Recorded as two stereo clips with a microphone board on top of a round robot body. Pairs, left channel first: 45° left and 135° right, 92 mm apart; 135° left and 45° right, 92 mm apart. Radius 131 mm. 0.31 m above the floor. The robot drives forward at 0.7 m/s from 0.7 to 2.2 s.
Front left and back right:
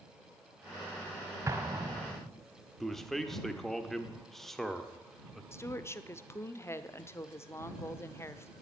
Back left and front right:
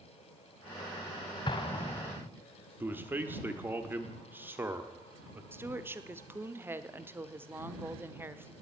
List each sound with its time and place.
1.5 s an explosion: 165° left, 1.5 m; by 2.3 s 170° left, 2.0 m
2.8 s a man speaking: 35° right, 1.6 m
5.5 s a woman speaking: 5° left, 1.0 m